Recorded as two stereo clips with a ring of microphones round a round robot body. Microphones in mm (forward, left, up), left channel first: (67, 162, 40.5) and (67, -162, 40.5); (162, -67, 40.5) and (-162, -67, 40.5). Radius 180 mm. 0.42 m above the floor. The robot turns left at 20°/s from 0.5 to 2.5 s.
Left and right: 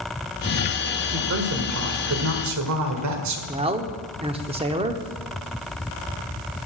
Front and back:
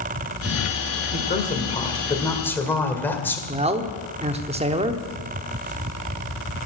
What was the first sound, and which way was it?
A woman speaking, 55° right.